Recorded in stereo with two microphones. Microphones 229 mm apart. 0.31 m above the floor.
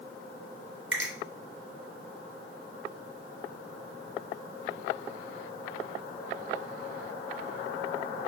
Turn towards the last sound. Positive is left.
turn(degrees=-55)  # may be behind; listen again after turning